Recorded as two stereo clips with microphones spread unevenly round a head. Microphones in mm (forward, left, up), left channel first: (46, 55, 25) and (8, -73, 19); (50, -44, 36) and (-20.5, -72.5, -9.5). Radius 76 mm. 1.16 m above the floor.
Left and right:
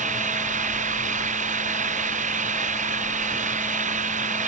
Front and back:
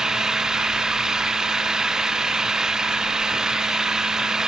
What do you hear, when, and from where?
0.0 s an engine running: 75° right